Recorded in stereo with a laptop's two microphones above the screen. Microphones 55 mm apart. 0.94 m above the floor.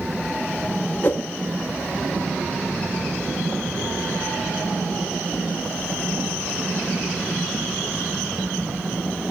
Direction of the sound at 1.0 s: 35° left (ahead or behind).